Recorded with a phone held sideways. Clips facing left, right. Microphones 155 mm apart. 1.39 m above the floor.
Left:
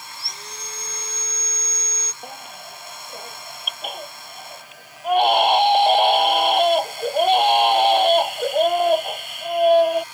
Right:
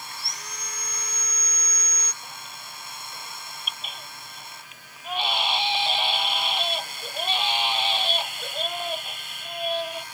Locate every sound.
0.1 s sawing: 30° left (ahead or behind)
2.2 s a baby crying: 55° left (ahead or behind)